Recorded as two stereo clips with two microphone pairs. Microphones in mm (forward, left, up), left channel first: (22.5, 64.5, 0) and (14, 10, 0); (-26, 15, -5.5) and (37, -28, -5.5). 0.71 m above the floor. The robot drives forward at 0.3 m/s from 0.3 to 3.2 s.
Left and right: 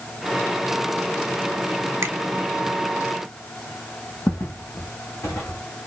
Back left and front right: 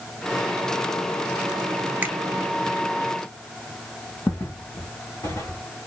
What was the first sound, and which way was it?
A finger snap, 90° right.